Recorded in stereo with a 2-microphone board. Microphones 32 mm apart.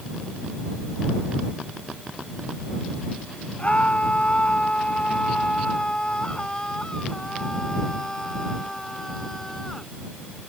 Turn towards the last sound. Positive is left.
turn(degrees=10)  # may be behind; listen again after turning